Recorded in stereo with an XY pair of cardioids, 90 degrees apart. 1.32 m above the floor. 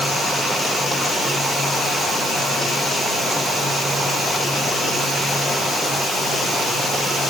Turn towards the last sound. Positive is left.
No sound to turn to.